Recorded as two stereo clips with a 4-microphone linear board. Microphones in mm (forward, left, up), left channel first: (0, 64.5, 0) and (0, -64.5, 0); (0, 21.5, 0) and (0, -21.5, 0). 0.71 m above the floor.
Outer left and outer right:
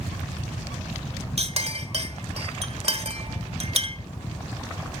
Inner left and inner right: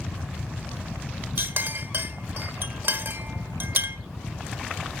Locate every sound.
1.4 s a clink: 55° right (ahead or behind), 1.7 m